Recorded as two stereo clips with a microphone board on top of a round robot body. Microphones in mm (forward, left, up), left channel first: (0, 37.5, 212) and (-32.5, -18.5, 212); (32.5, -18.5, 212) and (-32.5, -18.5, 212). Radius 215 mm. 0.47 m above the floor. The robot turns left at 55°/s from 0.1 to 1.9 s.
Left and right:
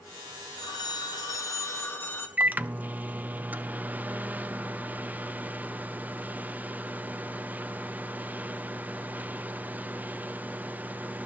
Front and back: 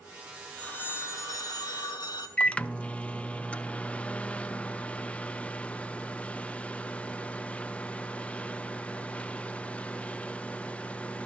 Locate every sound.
0.6 s a phone ringing: 75° left, 1.4 m; by 2.3 s straight ahead, 1.4 m
2.4 s a microwave: 65° right, 0.7 m